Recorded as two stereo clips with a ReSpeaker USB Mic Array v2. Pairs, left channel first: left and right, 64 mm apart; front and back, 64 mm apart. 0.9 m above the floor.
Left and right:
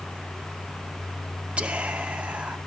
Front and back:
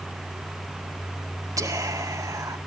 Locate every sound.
1.6 s whispering: 160° right, 2.5 m